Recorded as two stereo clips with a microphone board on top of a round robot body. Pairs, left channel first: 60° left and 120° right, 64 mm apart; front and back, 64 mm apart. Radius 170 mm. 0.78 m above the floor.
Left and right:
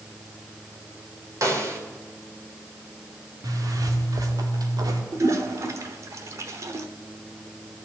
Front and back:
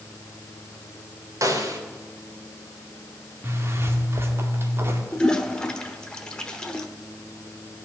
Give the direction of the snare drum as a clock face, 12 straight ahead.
5 o'clock.